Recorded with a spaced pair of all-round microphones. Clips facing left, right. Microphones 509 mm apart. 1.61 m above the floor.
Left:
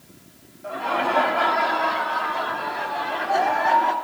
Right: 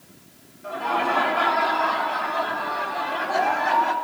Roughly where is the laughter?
Right.